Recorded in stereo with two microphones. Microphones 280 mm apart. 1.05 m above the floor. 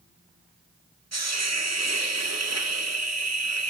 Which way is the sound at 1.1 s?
65° right (ahead or behind).